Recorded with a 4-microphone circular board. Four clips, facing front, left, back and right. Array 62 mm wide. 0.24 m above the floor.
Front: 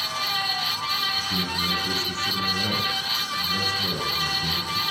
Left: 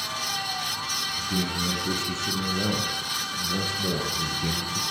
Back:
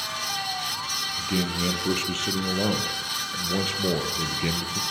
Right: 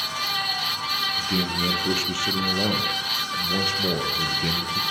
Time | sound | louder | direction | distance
1.2 | a man speaking | right 3 dB, back 1 dB | 140° right | 7.5 m